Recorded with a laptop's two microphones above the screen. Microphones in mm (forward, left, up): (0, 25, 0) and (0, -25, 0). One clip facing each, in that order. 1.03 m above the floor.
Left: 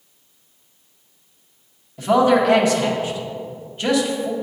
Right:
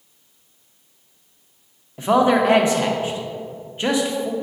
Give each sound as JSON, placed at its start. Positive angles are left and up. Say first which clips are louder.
{"t": 2.0, "sound": "a man speaking", "louder": "left 1 dB", "side_deg": -25, "distance_m": 0.7}